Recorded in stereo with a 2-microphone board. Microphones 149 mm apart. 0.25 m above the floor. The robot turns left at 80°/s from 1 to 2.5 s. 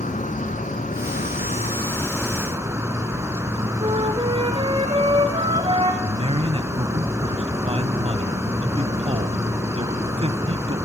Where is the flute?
35° right (ahead or behind), 4 m.